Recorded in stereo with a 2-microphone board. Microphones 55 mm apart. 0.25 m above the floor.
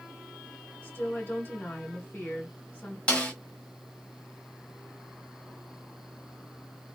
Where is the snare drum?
25° left (ahead or behind), 1.3 m.